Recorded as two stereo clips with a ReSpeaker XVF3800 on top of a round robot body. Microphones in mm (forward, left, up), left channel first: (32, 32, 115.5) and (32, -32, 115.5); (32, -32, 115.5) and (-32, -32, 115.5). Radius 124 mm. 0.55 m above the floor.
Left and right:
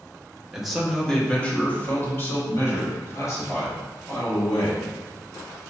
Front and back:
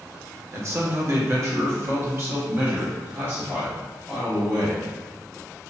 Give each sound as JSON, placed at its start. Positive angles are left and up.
{"t": 0.5, "sound": "a man speaking", "azimuth_deg": -170, "distance_m": 1.3}